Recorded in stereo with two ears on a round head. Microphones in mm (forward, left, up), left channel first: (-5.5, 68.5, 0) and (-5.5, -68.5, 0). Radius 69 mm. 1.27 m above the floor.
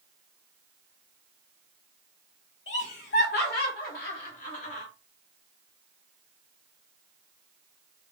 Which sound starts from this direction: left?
Laughter, at 2.7 s.